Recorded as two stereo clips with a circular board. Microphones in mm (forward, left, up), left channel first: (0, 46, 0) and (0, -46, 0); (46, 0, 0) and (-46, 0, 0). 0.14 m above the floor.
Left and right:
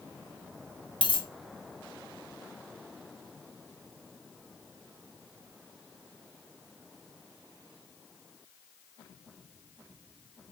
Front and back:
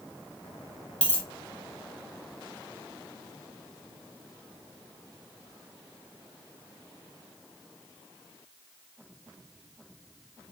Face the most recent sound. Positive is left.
turn(degrees=75)